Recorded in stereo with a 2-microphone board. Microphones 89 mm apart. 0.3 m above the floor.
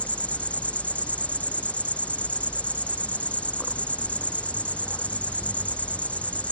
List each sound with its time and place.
0.0 s an insect: 15° left (ahead or behind)